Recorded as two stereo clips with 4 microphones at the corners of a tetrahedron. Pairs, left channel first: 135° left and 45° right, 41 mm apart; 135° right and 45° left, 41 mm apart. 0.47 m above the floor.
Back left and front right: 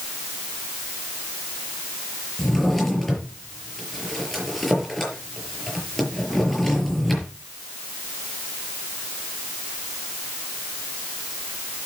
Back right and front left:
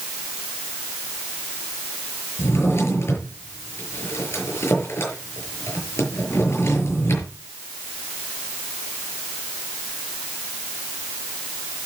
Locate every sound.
2.4 s a drawer: 140° right, 6 m